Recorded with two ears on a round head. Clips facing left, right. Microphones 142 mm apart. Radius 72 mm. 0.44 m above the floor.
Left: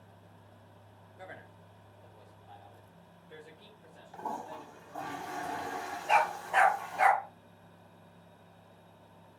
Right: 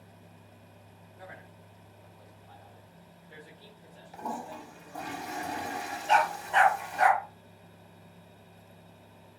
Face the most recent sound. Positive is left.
turn(degrees=5)  # may be behind; listen again after turning